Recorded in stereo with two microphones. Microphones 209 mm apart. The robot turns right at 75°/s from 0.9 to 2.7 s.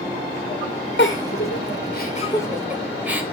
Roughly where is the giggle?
Left.